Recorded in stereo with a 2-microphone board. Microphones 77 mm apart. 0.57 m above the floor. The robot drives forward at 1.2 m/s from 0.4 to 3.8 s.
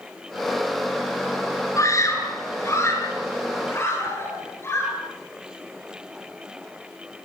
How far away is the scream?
About 8 m.